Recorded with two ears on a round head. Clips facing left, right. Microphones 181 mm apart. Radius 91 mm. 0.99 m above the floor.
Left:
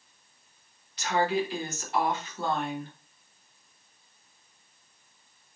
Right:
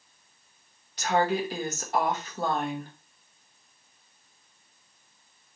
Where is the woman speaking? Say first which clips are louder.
Right 1 dB; 35° right (ahead or behind), 1.0 m.